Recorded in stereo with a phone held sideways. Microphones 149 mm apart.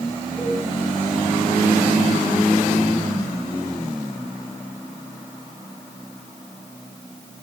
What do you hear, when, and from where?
0.4 s a cowbell: 10° left (ahead or behind), 6 m